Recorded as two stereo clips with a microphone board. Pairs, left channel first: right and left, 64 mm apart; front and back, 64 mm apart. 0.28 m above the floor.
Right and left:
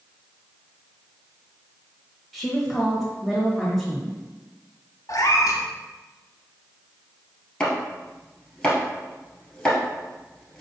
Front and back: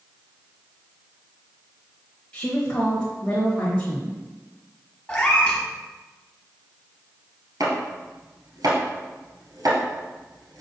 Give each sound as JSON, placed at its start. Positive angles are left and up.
{"t": 2.3, "sound": "a woman speaking", "azimuth_deg": -5, "distance_m": 1.0}
{"t": 5.1, "sound": "a cat meowing", "azimuth_deg": -70, "distance_m": 0.9}
{"t": 7.6, "sound": "chopping", "azimuth_deg": -170, "distance_m": 1.6}